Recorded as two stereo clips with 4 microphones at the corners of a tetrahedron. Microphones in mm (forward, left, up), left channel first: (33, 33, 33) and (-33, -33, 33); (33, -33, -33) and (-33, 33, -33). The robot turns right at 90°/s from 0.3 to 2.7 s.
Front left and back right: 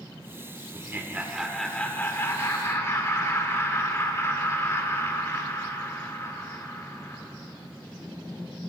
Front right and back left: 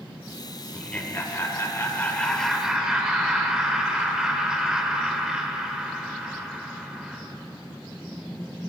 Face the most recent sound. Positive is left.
turn(degrees=60)